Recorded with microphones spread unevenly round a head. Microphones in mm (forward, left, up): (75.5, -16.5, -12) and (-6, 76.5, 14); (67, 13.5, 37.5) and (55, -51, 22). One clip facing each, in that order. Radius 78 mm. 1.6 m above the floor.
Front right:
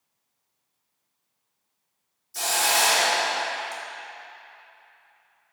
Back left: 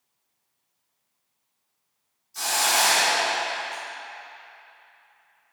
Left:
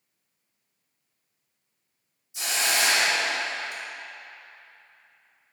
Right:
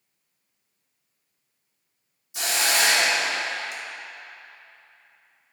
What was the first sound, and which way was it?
A hiss, 85° right.